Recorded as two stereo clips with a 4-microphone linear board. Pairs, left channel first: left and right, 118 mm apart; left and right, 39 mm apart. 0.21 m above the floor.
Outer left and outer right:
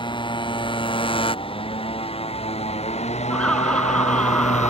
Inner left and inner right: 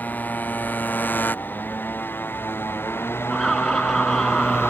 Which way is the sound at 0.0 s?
45° left (ahead or behind).